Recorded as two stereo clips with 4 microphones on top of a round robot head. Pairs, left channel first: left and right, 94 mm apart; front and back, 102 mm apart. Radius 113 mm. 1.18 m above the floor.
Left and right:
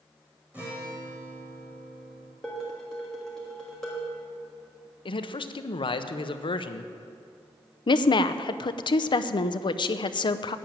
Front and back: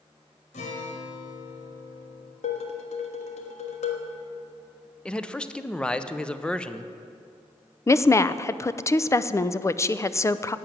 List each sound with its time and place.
0.5 s a guitar: 10° right, 1.7 m
2.4 s dishes clattering: 5° left, 1.4 m
5.0 s a man speaking: 80° left, 0.9 m
7.9 s a woman speaking: 60° left, 0.6 m